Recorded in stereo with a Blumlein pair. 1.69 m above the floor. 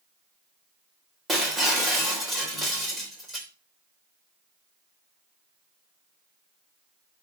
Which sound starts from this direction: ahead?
Breaking glass, at 1.3 s.